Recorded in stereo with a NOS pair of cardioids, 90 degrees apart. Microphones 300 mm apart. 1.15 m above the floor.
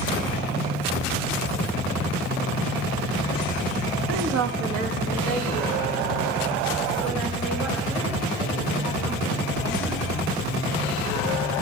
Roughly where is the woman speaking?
Ahead right.